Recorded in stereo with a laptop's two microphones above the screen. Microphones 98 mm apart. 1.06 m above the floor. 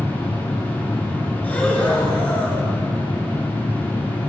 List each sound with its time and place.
0.0 s a machine running: 20° left (ahead or behind), 2 m
1.4 s breathing: 15° left (ahead or behind), 1.4 m